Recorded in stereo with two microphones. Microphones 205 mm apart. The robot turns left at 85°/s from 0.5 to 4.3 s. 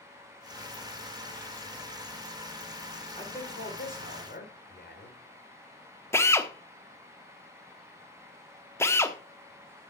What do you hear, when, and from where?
3.1 s a man speaking: 155° left, 3 m; by 5.2 s 60° left, 3 m
6.1 s a drill: 10° left (ahead or behind), 0.9 m